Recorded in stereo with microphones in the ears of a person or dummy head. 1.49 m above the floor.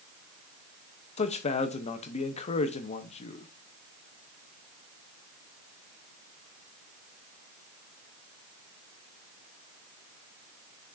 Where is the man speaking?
40° left (ahead or behind), 0.9 m.